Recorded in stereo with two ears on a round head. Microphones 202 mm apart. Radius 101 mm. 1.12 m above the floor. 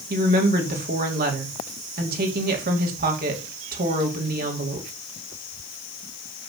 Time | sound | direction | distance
0.1 | a woman speaking | 40° right (ahead or behind) | 2.5 m